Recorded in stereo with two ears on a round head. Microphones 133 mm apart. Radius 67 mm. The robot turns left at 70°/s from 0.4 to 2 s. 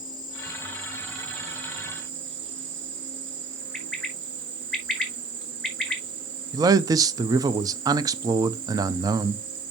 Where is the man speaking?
25° right (ahead or behind), 0.5 m.